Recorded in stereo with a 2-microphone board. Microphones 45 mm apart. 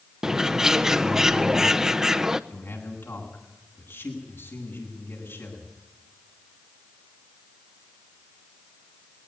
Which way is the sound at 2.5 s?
70° left (ahead or behind).